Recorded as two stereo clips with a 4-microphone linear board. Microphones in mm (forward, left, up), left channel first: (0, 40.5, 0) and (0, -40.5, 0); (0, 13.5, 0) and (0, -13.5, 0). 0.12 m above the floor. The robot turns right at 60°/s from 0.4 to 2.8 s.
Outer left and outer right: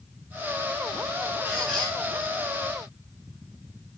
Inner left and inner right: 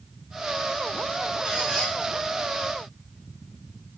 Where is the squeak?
15° right, 9 m; by 1.9 s 15° left, 9 m.